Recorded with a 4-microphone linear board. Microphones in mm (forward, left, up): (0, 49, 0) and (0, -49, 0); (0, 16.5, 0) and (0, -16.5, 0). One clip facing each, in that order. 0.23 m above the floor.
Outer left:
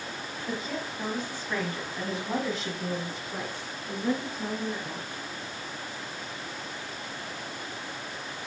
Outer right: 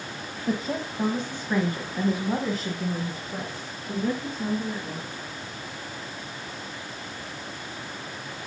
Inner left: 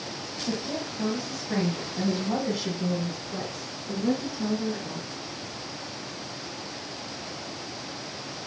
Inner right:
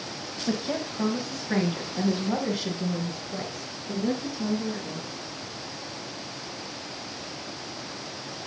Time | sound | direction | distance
0.5 | a woman speaking | 35° right (ahead or behind) | 1.5 m